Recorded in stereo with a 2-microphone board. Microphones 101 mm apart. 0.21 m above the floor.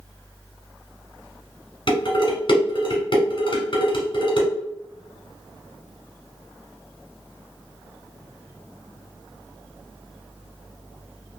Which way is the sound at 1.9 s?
50° left (ahead or behind).